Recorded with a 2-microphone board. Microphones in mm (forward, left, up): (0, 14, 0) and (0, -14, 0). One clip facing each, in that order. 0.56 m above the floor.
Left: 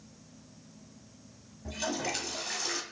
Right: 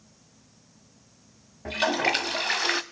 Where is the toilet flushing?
60° right (ahead or behind), 0.6 m.